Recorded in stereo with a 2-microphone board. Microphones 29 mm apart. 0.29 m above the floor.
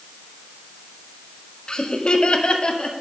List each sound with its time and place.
1.7 s laughter: 30° left (ahead or behind), 1.0 m; by 2.9 s 35° left (ahead or behind), 1.6 m